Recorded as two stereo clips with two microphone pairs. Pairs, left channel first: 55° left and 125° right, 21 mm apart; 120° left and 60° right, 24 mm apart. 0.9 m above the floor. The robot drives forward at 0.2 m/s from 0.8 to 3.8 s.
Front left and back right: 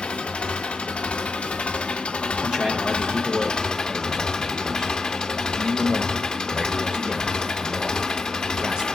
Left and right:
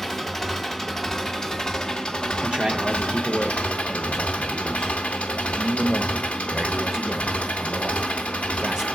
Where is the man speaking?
100° right, 0.6 m; by 8.9 s 130° right, 0.7 m.